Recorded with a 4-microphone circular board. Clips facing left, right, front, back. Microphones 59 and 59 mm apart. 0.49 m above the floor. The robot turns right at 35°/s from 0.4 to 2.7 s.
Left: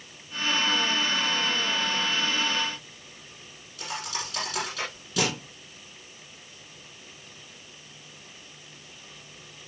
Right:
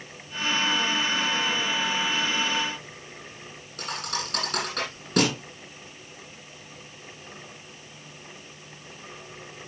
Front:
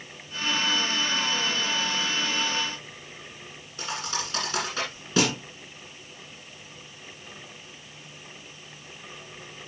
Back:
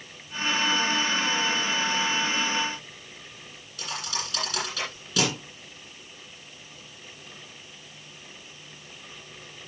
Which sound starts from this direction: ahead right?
A thud, at 3.8 s.